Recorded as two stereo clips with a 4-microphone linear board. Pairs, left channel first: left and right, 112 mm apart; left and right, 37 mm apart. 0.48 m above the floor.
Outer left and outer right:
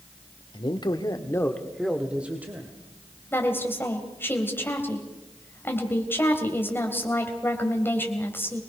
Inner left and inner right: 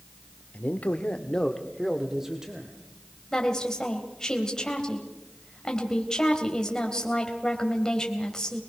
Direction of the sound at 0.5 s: 45° left (ahead or behind).